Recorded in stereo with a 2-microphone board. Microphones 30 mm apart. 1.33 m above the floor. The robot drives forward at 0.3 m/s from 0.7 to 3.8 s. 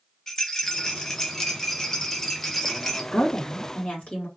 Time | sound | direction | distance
0.3 | a rattle | 15° left (ahead or behind) | 0.8 m
3.1 | a woman speaking | 50° left (ahead or behind) | 1.7 m